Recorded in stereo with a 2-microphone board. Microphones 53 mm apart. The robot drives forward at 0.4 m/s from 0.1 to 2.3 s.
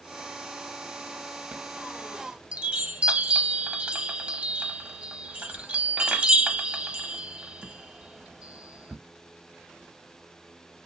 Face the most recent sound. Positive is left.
turn(degrees=-20)  # may be behind; listen again after turning